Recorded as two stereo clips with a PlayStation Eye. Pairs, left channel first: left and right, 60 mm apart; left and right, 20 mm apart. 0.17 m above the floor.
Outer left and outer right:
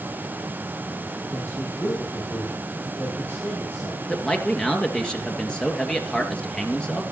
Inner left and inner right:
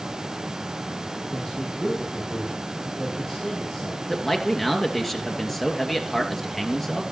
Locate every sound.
1.3 s a man speaking: 30° left (ahead or behind), 7 m
4.1 s a man speaking: 15° left (ahead or behind), 2.5 m